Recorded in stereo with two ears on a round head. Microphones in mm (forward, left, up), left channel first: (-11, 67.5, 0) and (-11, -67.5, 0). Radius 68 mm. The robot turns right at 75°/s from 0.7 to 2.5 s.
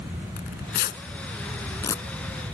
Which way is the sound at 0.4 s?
60° left (ahead or behind).